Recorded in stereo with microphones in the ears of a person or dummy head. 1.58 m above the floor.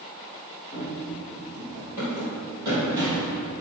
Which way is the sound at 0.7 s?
5° left (ahead or behind).